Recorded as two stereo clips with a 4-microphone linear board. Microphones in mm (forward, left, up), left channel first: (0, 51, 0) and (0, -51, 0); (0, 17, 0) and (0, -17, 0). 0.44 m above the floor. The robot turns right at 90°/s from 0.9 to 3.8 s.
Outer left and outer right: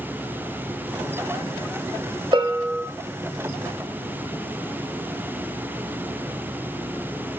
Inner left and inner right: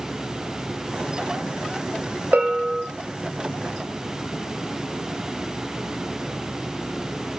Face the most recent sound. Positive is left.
turn(degrees=45)